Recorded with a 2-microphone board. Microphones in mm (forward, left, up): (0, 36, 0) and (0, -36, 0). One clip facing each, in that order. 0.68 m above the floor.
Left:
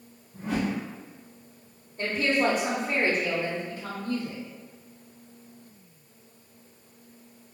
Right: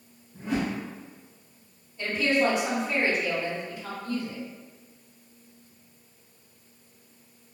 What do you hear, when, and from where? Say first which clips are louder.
0.3 s a whoosh: even; 65° left (ahead or behind), 1.7 m
2.0 s a woman speaking: right 1 dB; 45° left (ahead or behind), 0.9 m